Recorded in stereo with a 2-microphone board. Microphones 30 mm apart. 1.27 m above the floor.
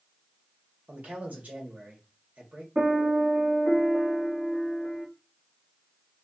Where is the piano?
50° right (ahead or behind), 2.5 m.